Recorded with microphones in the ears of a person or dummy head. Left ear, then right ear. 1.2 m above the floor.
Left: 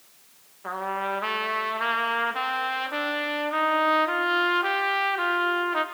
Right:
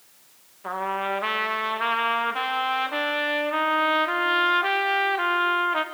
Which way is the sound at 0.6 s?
5° right (ahead or behind).